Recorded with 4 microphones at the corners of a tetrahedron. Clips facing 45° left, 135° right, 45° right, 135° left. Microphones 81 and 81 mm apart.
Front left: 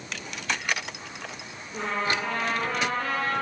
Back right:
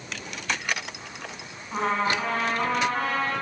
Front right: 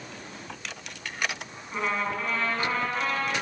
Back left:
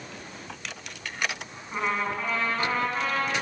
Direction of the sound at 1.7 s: 150° right.